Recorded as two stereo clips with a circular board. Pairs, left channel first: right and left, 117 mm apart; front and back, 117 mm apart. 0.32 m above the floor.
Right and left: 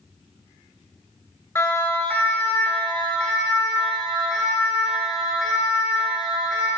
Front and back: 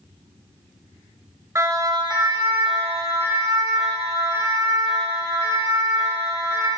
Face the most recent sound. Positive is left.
turn(degrees=180)